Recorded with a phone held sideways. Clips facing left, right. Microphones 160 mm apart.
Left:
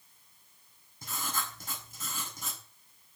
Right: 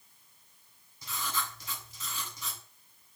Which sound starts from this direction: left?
Writing, at 1.0 s.